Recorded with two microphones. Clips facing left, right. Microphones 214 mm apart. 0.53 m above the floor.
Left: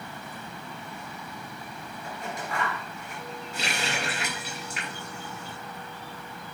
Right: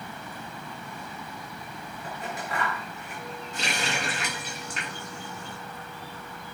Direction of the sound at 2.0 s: 5° right (ahead or behind).